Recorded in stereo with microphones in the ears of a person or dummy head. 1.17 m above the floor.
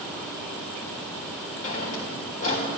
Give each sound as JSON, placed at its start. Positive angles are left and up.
{"t": 1.6, "sound": "a drawer", "side_deg": 40, "distance_m": 1.1}